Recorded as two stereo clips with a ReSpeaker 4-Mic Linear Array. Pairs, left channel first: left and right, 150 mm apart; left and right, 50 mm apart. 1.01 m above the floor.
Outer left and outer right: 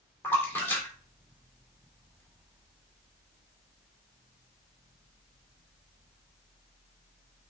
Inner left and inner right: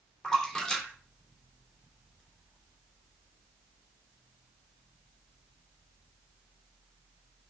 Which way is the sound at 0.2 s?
15° left (ahead or behind).